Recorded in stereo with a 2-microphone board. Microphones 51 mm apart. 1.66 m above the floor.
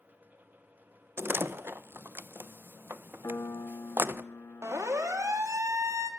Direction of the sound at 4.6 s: 75° right (ahead or behind).